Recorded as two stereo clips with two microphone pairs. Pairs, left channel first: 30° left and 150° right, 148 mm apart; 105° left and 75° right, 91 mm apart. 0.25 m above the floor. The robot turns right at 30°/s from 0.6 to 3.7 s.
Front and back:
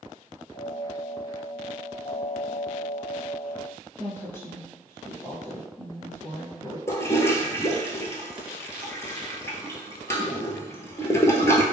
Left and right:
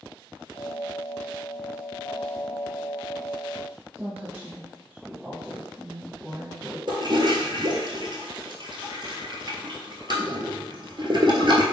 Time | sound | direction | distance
4.0 | a woman speaking | 25° right | 1.1 m
6.9 | a toilet flushing | 40° right | 0.7 m